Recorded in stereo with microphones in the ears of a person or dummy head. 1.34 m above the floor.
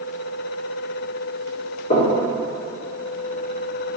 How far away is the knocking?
About 2 m.